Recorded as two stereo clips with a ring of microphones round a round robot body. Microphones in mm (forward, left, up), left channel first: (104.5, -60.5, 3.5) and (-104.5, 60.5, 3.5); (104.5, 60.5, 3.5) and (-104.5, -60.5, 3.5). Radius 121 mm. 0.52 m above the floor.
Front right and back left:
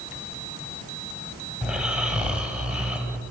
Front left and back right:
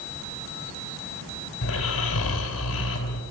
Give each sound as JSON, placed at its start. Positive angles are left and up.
{"t": 1.6, "sound": "snoring", "azimuth_deg": 65, "distance_m": 3.0}